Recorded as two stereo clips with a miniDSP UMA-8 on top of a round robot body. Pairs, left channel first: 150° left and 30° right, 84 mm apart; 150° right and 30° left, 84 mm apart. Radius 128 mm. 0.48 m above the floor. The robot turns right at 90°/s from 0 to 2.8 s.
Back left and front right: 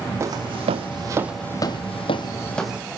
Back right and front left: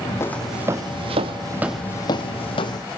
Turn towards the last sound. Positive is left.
turn(degrees=-105)